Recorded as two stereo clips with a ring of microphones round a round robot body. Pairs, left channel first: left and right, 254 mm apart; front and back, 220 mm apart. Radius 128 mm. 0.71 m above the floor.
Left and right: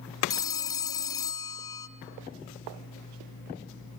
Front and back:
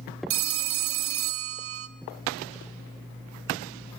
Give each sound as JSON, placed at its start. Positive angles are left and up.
{"t": 0.3, "sound": "a phone ringing", "azimuth_deg": 165, "distance_m": 1.0}